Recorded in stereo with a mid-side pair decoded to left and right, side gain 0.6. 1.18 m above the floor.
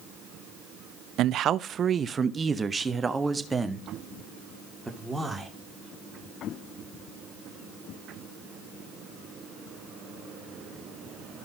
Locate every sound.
1.2 s a man speaking: 60° right, 0.7 m; by 5.5 s 5° right, 2.5 m